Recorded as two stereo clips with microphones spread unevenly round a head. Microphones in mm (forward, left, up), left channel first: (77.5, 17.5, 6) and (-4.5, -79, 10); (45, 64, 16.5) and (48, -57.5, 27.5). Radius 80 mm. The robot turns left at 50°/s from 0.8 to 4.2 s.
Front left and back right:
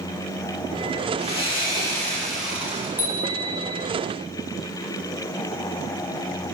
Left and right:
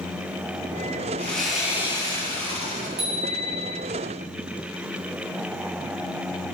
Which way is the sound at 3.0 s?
55° right.